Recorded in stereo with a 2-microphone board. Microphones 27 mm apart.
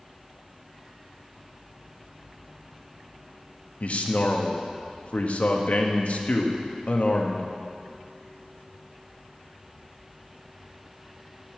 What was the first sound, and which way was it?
A man speaking, 60° left (ahead or behind).